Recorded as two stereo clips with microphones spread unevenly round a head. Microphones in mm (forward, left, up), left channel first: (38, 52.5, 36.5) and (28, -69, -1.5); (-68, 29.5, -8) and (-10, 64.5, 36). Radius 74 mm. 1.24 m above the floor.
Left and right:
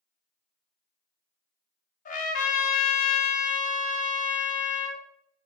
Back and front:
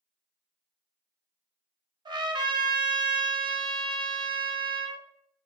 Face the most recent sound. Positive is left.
turn(degrees=60)